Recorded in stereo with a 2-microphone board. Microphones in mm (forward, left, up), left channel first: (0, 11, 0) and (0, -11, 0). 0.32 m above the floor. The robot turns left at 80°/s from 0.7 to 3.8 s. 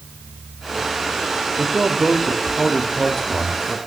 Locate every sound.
1.6 s a man speaking: 25° right (ahead or behind), 1.0 m; by 3.8 s 25° left (ahead or behind), 1.0 m